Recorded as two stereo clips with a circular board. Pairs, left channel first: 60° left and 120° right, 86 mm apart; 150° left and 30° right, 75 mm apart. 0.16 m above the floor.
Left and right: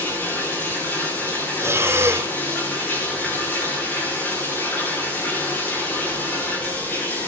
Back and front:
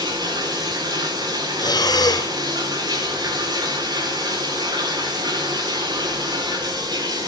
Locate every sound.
0.0 s running water: 10° right, 7 m
1.6 s breathing: straight behind, 1.1 m